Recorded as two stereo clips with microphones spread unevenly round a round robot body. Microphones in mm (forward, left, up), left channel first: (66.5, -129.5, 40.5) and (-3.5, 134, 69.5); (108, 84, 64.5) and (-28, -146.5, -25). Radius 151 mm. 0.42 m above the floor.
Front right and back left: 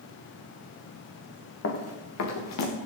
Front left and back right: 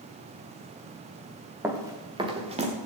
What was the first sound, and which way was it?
Running footsteps, 35° right.